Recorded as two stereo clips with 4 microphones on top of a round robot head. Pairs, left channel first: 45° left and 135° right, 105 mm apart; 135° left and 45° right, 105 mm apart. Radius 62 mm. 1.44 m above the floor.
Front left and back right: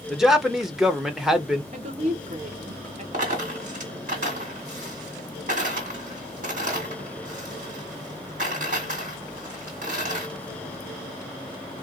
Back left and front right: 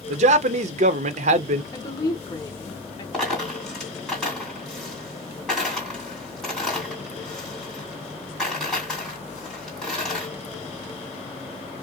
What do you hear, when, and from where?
0.1 s a man speaking: 50° right, 0.5 m
1.7 s a woman speaking: 165° right, 1.0 m
3.1 s a dropped coin: 135° right, 2.5 m